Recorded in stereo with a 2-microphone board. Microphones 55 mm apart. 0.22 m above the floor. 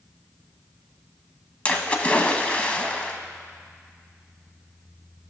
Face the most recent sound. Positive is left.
turn(degrees=25)  # may be behind; listen again after turning